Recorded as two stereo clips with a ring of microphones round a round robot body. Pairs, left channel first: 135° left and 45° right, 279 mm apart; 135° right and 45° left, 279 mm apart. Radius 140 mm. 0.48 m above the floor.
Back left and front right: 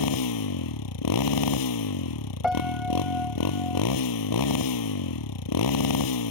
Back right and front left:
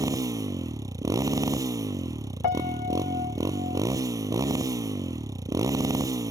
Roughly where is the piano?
Behind right.